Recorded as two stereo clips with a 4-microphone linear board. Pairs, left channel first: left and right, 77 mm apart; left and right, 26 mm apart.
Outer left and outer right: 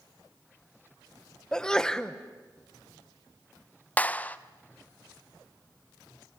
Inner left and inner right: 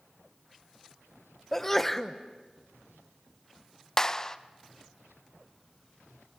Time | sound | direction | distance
1.5 | a sneeze | 10° left (ahead or behind) | 1.0 m
4.0 | a clap | 20° left (ahead or behind) | 0.6 m